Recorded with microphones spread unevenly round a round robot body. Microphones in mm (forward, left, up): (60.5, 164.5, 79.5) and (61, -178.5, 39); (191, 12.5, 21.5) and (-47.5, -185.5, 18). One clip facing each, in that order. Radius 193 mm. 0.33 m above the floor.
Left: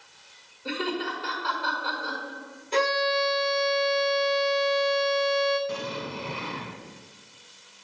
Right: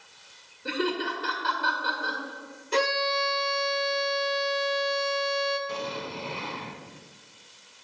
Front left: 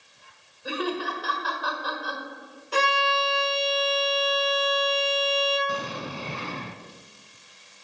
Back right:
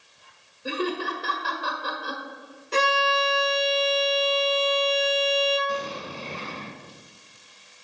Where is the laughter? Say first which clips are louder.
Right 1 dB, back right 1 dB; 120° right, 1.7 m.